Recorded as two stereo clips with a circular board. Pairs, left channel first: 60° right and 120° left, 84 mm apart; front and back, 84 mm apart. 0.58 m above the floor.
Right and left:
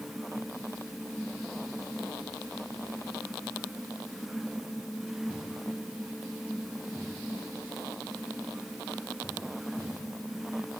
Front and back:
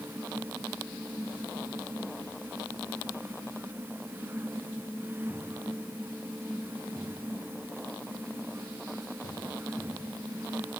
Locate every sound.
Only background noise.